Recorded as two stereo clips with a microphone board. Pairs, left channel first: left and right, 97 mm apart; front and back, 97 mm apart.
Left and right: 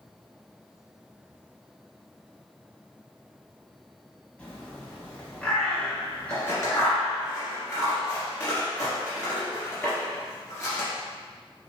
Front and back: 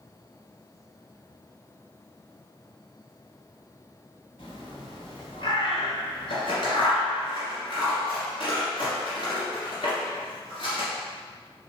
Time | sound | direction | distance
4.4 | a bird | 15° left | 1.2 m
6.3 | scissors | 30° left | 1.9 m